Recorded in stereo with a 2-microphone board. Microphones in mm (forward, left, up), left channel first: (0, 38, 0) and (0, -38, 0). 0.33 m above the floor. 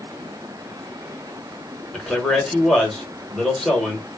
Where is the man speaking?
10° left (ahead or behind), 1.2 m.